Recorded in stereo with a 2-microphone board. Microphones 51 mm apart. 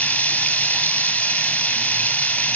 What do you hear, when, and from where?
0.0 s running water: 25° left (ahead or behind), 0.8 m